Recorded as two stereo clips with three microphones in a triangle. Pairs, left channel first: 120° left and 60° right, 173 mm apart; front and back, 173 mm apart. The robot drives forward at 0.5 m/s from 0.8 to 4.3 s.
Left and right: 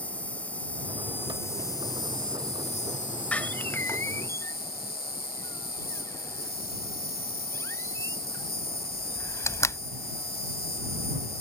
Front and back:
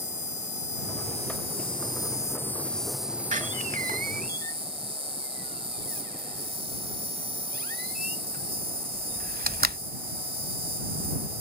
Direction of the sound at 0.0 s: 40° left.